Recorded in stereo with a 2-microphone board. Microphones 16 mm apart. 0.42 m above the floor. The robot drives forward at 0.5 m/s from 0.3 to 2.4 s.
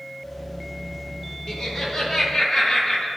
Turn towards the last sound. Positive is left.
turn(degrees=20)  # may be behind; listen again after turning